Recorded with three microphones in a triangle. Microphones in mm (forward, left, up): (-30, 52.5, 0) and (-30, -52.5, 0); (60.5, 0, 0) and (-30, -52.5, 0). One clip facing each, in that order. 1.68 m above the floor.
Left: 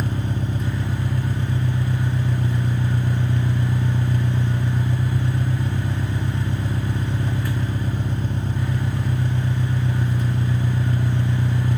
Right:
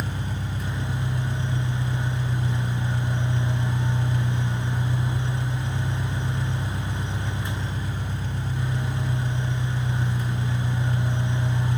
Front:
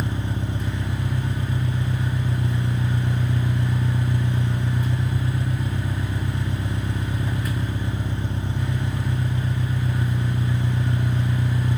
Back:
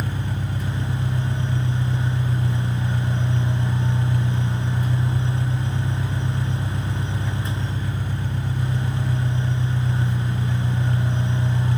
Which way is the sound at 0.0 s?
85° left.